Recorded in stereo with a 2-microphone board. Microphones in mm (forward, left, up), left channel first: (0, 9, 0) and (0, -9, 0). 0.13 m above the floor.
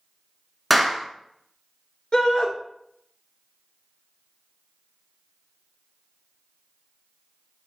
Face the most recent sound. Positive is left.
turn(degrees=40)  # may be behind; listen again after turning